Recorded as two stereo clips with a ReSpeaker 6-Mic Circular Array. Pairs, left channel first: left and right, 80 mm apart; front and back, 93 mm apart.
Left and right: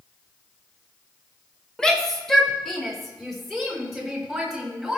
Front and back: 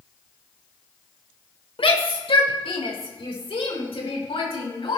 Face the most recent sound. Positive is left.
turn(degrees=0)